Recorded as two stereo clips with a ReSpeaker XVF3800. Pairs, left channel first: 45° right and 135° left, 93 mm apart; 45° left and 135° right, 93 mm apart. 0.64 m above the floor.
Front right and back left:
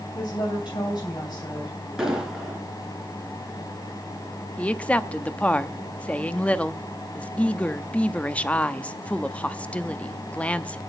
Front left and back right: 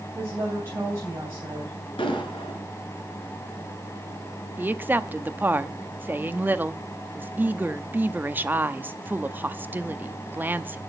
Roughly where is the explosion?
Ahead left.